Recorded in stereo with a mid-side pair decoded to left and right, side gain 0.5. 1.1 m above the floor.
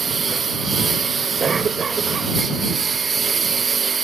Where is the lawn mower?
35° right.